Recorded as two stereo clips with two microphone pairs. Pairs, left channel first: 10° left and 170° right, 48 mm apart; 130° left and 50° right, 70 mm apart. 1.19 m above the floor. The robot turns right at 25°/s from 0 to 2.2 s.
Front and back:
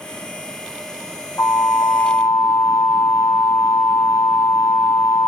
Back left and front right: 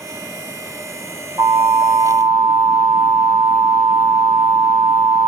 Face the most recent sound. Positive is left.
turn(degrees=0)